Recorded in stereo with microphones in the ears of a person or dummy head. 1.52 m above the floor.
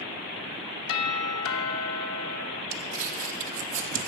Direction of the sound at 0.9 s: 75° left (ahead or behind).